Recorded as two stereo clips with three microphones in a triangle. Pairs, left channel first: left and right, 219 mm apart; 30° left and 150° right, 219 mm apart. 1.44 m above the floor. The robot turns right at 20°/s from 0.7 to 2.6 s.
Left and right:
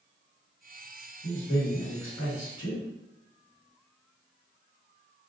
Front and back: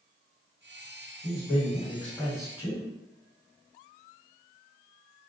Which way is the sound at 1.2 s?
80° left.